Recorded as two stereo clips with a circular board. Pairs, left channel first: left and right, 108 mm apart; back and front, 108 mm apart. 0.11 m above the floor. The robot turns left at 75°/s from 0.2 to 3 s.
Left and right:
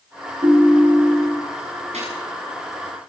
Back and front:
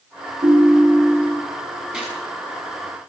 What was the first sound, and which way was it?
A ringtone, 40° right.